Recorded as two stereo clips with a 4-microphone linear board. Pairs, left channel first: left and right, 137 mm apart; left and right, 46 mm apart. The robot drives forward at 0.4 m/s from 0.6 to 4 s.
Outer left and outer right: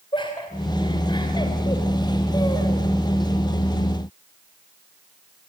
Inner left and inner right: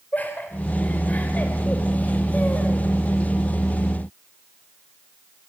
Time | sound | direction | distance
0.1 | laughter | 35° left (ahead or behind) | 3.5 m